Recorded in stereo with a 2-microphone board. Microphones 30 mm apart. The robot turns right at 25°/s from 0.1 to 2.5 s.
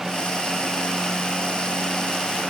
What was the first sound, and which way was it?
Only background noise.